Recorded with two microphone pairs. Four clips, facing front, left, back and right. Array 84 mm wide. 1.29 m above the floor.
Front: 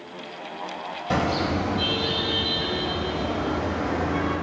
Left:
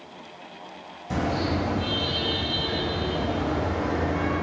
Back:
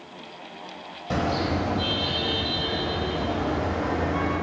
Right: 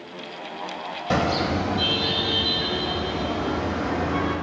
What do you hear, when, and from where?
1.1 s a car horn: 95° right, 3 m